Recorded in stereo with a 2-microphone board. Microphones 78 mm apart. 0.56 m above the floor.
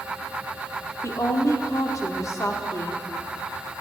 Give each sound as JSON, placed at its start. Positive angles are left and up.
{"t": 1.0, "sound": "a woman speaking", "side_deg": 45, "distance_m": 1.2}